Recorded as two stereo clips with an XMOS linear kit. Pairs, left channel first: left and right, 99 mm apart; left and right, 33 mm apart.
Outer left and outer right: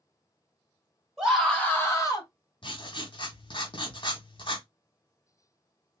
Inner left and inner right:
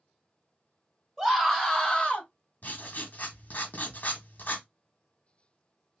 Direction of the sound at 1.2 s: 5° right (ahead or behind).